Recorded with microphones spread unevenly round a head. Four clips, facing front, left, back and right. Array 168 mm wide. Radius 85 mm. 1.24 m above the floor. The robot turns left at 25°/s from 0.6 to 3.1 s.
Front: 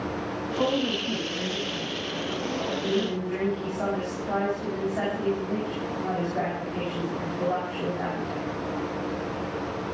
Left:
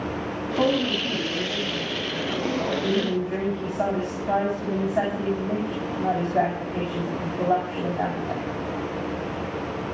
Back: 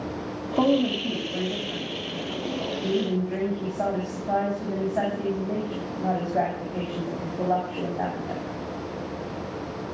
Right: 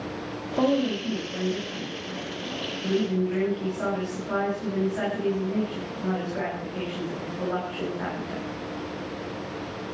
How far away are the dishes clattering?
No dishes clattering in this recording.